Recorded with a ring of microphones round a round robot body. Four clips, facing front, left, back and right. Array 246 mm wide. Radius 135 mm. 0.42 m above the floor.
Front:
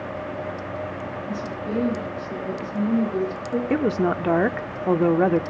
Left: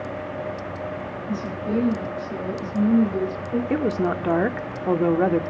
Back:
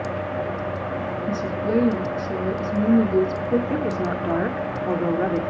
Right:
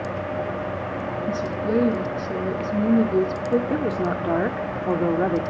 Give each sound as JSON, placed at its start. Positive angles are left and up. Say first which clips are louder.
{"t": 1.3, "sound": "a woman speaking", "louder": "right 2 dB, back 6 dB", "azimuth_deg": -140, "distance_m": 5.0}
{"t": 3.7, "sound": "a woman speaking", "louder": "left 1 dB, front 2 dB", "azimuth_deg": 30, "distance_m": 0.8}